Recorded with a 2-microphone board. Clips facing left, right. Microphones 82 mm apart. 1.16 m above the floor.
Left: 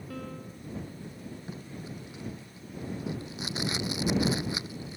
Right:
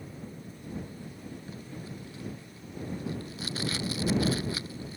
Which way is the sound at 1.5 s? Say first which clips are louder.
Left 1 dB; 20° left (ahead or behind).